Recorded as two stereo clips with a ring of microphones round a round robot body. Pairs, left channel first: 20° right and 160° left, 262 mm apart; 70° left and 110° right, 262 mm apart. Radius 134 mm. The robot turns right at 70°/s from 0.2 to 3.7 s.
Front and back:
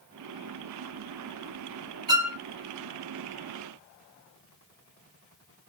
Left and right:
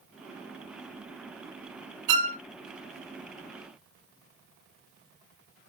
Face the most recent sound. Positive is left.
turn(degrees=-15)